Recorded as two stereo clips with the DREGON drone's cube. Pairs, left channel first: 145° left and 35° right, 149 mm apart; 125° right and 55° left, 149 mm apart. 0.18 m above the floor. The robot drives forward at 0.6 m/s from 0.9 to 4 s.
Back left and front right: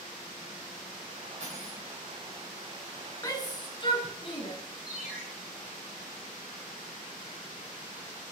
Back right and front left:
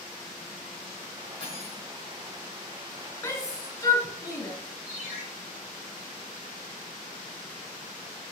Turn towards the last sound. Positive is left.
turn(degrees=-115)